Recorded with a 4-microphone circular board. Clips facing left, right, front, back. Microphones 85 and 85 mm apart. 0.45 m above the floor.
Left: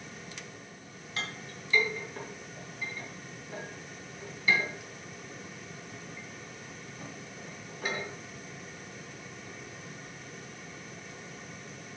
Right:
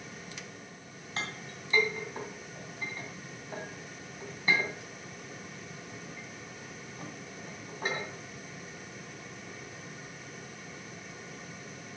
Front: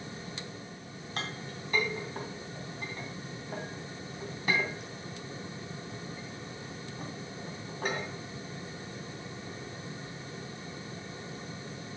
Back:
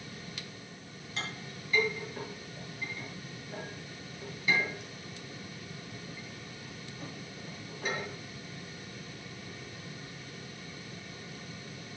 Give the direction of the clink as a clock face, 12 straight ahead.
1 o'clock.